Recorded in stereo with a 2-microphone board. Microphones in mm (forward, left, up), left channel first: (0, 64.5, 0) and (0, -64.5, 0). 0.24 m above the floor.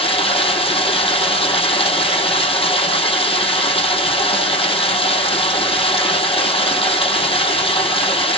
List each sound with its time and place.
0.0 s running water: 50° left (ahead or behind), 3 m